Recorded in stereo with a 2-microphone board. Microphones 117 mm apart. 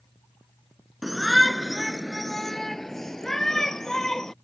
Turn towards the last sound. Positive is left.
turn(degrees=5)  # may be behind; listen again after turning